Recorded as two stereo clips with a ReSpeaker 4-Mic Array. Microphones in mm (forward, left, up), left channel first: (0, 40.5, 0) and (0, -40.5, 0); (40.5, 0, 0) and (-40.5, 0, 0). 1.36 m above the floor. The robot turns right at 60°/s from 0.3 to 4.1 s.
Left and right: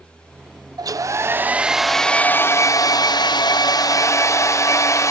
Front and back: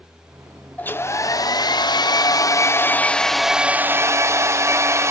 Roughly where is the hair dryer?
Ahead right.